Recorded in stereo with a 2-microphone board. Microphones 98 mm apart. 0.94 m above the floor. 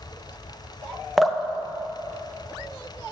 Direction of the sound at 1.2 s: Centre (ahead or behind).